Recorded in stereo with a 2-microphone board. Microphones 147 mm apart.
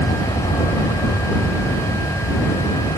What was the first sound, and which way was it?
An aircraft, 35° left (ahead or behind).